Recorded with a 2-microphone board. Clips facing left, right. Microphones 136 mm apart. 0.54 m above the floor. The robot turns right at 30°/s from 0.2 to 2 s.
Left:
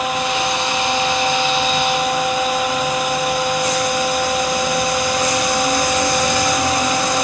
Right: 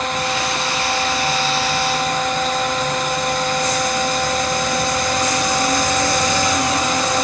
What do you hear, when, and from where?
Only background noise.